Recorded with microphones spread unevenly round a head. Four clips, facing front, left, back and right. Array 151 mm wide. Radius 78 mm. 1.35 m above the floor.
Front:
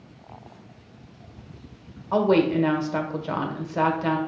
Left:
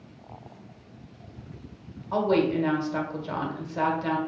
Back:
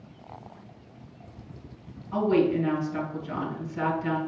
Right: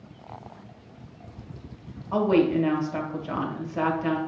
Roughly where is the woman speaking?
Ahead.